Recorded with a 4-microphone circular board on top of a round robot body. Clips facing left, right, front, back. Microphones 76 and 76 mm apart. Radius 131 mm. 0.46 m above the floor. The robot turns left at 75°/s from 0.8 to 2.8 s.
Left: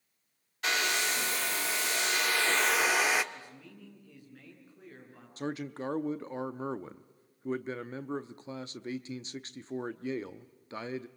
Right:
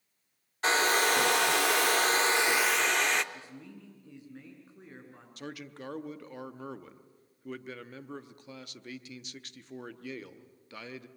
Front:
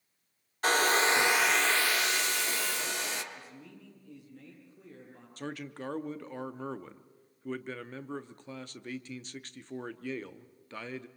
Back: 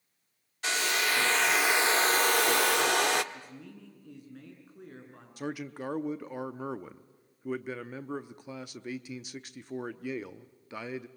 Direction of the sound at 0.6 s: 35° right.